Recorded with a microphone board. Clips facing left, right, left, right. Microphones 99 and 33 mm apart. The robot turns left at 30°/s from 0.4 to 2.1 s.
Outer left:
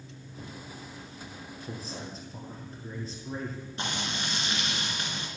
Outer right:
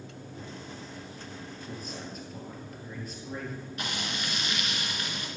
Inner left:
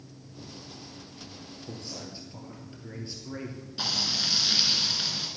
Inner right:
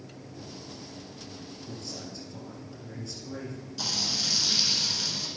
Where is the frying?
30° left (ahead or behind), 1.7 m.